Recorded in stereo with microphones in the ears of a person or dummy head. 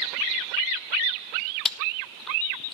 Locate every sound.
1.6 s chewing: centre (ahead or behind), 0.6 m